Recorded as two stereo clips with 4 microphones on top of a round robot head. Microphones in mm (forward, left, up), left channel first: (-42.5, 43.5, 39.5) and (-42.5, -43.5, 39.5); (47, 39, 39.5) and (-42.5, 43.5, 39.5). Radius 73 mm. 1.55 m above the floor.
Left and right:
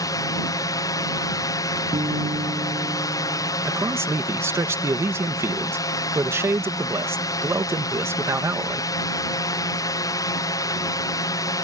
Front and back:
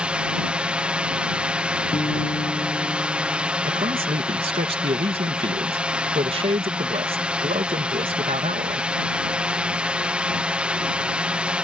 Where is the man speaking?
150° right.